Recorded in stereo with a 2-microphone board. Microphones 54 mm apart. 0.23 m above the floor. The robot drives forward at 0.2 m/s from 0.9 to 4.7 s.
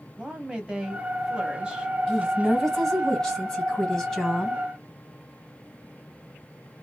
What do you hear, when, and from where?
0.2 s a woman speaking: 15° right (ahead or behind), 0.9 m
2.1 s a woman speaking: 10° left (ahead or behind), 1.8 m